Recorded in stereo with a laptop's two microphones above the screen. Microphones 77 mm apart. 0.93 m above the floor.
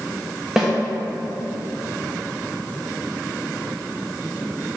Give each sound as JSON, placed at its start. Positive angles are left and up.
{"t": 0.6, "sound": "a snare drum", "side_deg": -5, "distance_m": 1.2}